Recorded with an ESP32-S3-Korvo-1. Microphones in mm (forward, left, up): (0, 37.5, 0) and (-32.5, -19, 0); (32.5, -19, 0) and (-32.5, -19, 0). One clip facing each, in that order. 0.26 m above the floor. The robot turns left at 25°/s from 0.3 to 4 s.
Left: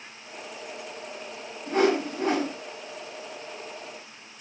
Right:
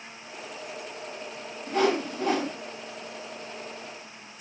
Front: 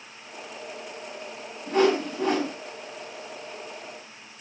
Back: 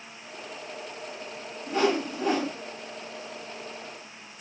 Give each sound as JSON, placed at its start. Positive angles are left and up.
{"t": 1.7, "sound": "a whoosh", "azimuth_deg": 35, "distance_m": 1.9}